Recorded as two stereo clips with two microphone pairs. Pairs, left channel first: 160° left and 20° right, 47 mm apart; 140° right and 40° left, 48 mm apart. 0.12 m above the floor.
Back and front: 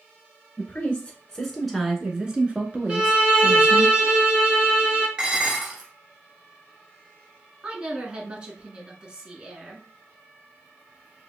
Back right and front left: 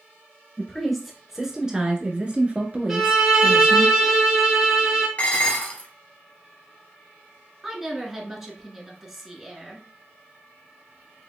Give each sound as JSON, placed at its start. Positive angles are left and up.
{"t": 0.6, "sound": "a woman speaking", "azimuth_deg": 140, "distance_m": 1.2}
{"t": 2.9, "sound": "a violin", "azimuth_deg": -35, "distance_m": 1.3}
{"t": 5.2, "sound": "dishes clattering", "azimuth_deg": -95, "distance_m": 1.2}
{"t": 7.6, "sound": "a woman speaking", "azimuth_deg": -25, "distance_m": 1.1}